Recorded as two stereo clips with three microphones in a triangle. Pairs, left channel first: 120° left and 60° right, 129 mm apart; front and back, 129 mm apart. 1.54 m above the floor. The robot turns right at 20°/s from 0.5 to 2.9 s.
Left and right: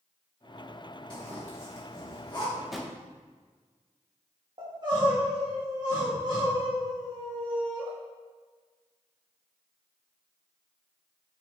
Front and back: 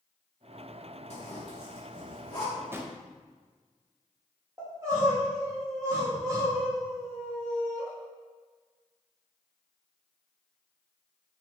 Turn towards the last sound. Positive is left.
turn(degrees=-115)